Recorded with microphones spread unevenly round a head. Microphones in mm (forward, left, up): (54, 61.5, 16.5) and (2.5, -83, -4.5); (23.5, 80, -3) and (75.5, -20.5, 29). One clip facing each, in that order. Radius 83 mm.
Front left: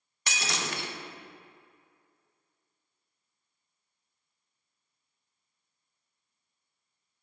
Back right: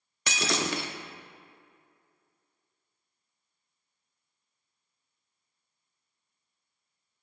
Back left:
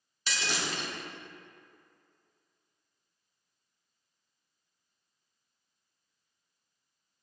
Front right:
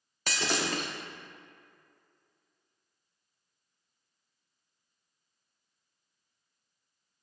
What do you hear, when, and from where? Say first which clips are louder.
0.3 s breaking glass: back right 5 dB, front right 4 dB; 105° right, 0.7 m